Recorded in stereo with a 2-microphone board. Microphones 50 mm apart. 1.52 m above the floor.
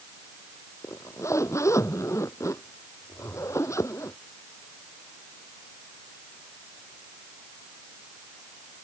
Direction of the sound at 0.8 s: 85° left.